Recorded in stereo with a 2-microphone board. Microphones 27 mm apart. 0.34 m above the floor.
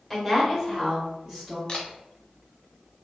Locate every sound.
0.1 s a woman speaking: 5° left (ahead or behind), 0.9 m; by 1.6 s 10° right (ahead or behind), 2 m
1.7 s a camera shutter: 30° left (ahead or behind), 0.7 m